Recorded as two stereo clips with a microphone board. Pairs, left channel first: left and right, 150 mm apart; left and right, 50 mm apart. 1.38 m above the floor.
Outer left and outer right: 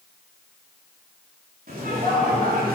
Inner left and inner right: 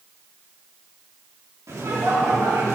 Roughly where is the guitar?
I don't hear a guitar.